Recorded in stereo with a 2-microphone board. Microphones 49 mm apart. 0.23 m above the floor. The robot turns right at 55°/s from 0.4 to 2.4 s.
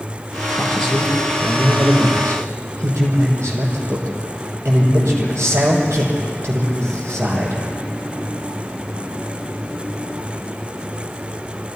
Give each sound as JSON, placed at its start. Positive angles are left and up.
{"t": 0.6, "sound": "a man speaking", "azimuth_deg": 155, "distance_m": 7.0}